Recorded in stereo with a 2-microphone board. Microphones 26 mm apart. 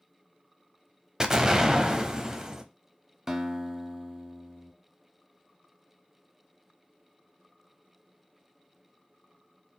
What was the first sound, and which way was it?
An explosion, 25° right (ahead or behind).